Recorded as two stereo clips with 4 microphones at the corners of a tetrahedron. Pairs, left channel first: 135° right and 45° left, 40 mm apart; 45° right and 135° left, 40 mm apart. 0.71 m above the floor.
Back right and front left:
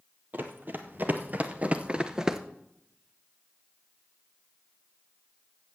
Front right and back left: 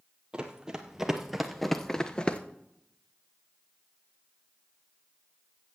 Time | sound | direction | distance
0.3 | running footsteps | 70° left | 1.3 m